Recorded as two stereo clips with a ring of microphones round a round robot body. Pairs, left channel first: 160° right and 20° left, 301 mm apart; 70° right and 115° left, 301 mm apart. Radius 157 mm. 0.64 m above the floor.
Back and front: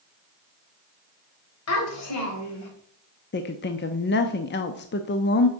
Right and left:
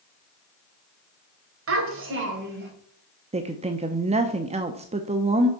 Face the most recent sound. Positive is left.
turn(degrees=170)